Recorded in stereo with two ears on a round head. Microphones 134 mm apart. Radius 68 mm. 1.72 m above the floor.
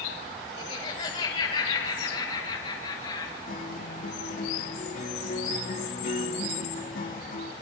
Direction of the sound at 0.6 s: 40° left (ahead or behind).